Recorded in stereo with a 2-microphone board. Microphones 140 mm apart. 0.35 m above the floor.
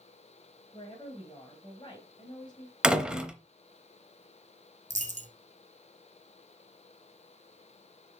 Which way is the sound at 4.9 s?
65° right (ahead or behind).